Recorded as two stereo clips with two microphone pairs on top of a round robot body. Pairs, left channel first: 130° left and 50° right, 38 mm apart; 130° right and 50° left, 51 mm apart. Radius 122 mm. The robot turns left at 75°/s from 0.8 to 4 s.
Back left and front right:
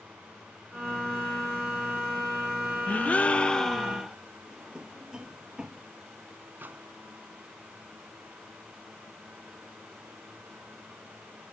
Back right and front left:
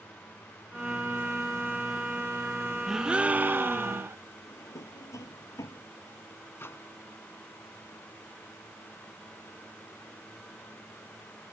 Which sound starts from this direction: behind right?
A drawer, at 4.5 s.